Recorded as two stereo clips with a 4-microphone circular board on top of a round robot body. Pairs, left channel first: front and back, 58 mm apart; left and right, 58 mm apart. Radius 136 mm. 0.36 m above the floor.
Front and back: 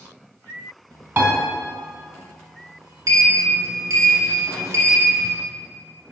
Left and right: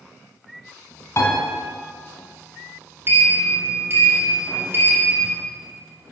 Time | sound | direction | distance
1.2 | a piano | 135° left | 2.5 m
3.1 | a sliding door | 145° right | 1.1 m